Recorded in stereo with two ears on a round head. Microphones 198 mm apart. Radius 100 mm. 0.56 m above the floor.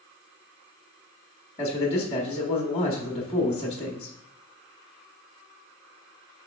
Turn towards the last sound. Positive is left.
turn(degrees=25)  # may be behind; listen again after turning